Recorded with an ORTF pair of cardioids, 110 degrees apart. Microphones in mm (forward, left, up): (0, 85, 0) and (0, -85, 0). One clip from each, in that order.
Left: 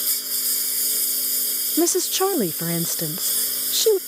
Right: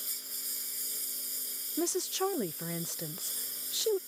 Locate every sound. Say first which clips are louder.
0.0 s a lawn mower: left 14 dB; 70° left
1.8 s a woman speaking: left 11 dB; 50° left